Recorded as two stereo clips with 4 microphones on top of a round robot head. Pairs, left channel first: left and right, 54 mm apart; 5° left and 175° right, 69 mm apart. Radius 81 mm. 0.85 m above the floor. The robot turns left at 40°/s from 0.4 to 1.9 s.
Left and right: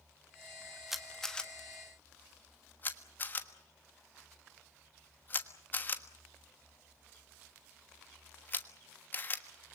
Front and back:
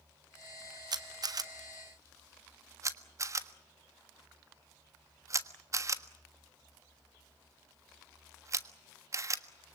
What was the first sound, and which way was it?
A camera shutter, 175° right.